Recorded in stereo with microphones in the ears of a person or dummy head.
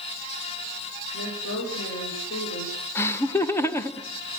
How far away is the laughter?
About 1.2 m.